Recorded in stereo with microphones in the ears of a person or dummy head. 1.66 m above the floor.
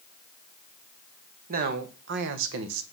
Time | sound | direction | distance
1.5 | a man speaking | 45° right (ahead or behind) | 1.5 m